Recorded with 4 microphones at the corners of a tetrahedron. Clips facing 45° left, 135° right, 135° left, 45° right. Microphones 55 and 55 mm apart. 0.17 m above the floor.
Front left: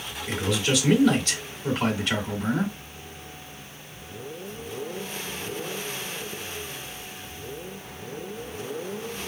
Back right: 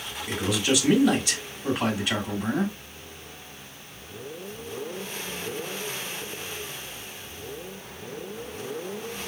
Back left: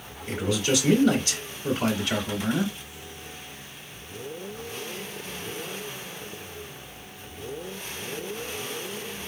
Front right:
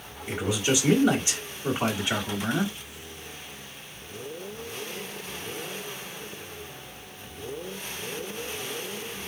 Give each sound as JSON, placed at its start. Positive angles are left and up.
{"t": 0.3, "sound": "a man speaking", "azimuth_deg": -65, "distance_m": 1.7}